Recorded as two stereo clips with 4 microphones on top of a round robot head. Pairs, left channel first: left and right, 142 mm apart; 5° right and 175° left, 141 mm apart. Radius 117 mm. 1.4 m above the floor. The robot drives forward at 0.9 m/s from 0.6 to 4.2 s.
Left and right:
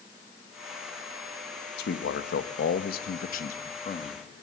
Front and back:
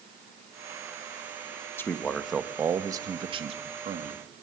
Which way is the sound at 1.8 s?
70° left.